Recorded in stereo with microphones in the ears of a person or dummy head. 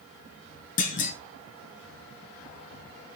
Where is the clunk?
50° left (ahead or behind), 1.0 m.